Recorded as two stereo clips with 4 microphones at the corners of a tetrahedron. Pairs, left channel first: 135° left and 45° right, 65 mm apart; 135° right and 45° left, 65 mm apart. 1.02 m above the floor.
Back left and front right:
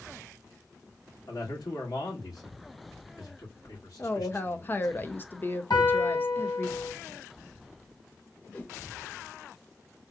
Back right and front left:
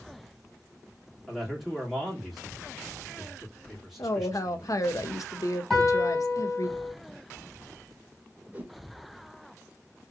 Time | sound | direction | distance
1.3 | a man speaking | 135° left | 2.5 m
4.0 | a woman speaking | 165° right | 0.7 m
5.7 | a piano | 140° left | 3 m
8.5 | a whoosh | 90° left | 0.8 m